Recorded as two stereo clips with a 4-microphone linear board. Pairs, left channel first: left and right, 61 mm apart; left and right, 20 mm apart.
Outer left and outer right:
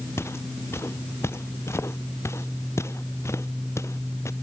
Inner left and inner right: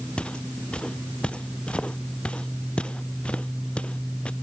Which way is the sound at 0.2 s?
45° left (ahead or behind).